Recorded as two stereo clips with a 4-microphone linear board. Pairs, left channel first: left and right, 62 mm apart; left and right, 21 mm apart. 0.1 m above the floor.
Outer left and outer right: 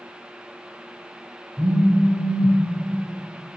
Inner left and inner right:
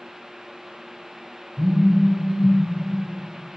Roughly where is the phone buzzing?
Centre.